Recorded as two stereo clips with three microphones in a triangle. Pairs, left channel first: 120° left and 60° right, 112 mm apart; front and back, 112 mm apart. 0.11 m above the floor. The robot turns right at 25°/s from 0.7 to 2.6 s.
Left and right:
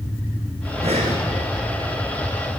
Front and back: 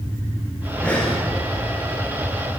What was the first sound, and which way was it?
Breathing, 80° right.